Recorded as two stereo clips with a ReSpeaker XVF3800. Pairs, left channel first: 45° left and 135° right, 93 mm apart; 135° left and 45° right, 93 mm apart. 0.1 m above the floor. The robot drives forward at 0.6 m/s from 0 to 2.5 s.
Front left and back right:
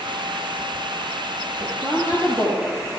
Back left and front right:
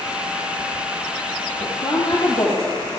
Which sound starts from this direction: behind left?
A woman speaking, at 1.6 s.